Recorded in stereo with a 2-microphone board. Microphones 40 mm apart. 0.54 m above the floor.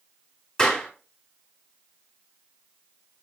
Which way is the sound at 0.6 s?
15° left (ahead or behind).